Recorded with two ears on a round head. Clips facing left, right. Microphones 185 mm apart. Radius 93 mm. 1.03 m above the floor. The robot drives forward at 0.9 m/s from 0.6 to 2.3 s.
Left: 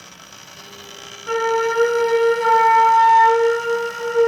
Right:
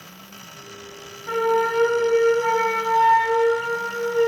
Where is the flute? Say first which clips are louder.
Left 1 dB; 35° left (ahead or behind), 3 m; by 4.3 s 25° left (ahead or behind), 4 m.